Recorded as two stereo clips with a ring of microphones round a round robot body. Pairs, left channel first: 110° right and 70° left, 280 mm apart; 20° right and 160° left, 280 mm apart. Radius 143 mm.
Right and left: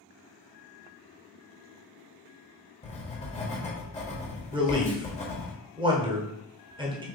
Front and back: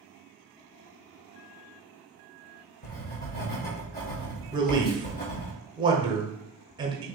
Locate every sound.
2.8 s writing: 60° right, 1.3 m
4.5 s a man speaking: 110° left, 0.9 m